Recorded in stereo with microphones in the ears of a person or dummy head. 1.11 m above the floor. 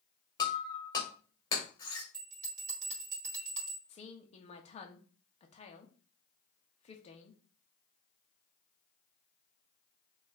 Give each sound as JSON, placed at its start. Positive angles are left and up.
{"t": 0.4, "sound": "breaking glass", "side_deg": 30, "distance_m": 2.0}
{"t": 2.1, "sound": "a bell", "side_deg": -45, "distance_m": 1.4}
{"t": 3.9, "sound": "a woman speaking", "side_deg": 40, "distance_m": 0.9}